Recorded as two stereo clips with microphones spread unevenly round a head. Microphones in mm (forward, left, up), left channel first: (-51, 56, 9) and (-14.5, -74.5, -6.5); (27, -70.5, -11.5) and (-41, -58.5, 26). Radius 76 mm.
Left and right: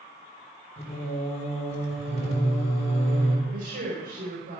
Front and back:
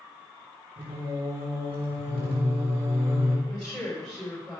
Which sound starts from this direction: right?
A woman speaking, at 3.5 s.